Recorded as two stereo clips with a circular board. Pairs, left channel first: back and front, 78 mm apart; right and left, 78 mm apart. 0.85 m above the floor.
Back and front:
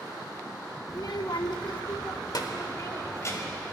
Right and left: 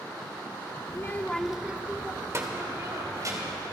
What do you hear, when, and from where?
0.9 s a child speaking: 140° right, 0.8 m; by 3.6 s 130° left, 2.5 m